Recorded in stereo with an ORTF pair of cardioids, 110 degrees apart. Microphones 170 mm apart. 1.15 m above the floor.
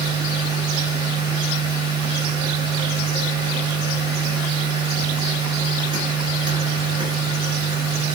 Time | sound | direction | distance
0.0 | a machine running | 25° right | 0.8 m